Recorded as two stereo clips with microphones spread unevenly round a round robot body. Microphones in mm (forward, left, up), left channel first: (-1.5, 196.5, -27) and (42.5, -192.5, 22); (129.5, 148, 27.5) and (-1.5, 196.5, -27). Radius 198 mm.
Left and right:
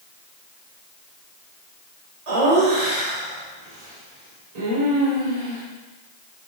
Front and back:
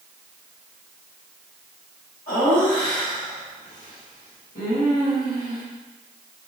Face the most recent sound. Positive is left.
turn(degrees=-85)